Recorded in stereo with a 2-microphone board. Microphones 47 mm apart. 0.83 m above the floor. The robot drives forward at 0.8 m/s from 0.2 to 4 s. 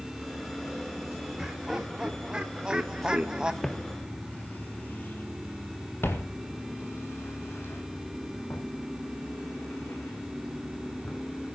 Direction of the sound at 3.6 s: 5° left (ahead or behind).